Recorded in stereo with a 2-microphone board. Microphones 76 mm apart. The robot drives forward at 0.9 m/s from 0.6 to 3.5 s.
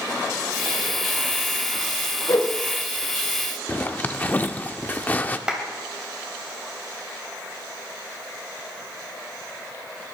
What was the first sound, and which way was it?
A whoosh, 50° left (ahead or behind).